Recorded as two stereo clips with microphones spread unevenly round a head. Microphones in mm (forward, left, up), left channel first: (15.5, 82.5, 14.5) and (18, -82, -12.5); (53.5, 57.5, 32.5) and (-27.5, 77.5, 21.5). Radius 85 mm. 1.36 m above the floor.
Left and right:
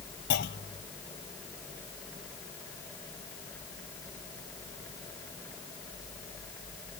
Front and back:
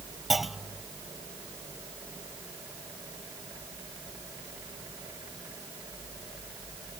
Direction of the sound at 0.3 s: 75° left.